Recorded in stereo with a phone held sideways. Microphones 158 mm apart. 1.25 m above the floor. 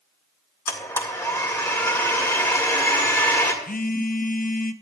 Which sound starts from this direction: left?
A phone buzzing, at 3.6 s.